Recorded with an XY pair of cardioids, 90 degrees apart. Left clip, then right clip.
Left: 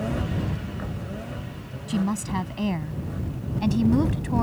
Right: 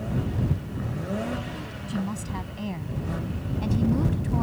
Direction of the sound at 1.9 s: 50° left.